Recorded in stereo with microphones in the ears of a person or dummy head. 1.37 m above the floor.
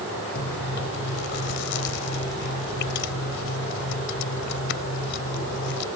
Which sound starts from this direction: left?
Chewing, at 0.3 s.